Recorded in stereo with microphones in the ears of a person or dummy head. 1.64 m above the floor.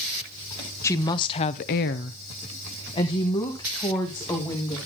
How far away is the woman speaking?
About 0.8 m.